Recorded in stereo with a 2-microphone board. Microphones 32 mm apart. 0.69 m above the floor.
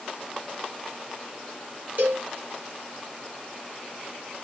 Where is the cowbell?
60° right (ahead or behind), 2 m.